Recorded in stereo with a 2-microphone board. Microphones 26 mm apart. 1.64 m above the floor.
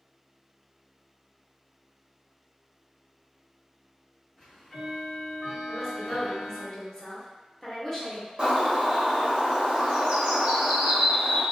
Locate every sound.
4.4 s ticking: 25° left (ahead or behind), 1.2 m
5.7 s a woman speaking: 25° left (ahead or behind), 1.0 m
8.4 s a bird: 35° right (ahead or behind), 0.9 m